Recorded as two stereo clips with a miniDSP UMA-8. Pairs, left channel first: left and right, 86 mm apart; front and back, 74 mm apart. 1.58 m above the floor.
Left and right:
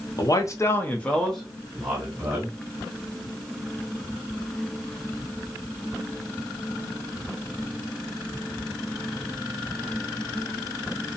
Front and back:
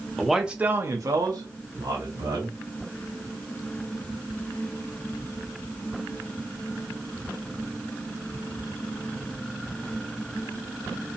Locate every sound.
0.2 s a man speaking: 80° left, 0.5 m; by 2.6 s 170° right, 1.3 m